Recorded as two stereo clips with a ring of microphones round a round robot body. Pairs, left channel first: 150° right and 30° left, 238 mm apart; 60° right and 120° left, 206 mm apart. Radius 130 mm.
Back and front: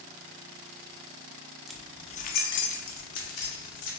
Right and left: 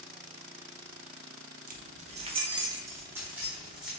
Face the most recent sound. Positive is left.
turn(degrees=-150)